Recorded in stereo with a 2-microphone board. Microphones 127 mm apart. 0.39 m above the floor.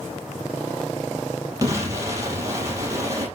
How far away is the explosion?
About 4.5 m.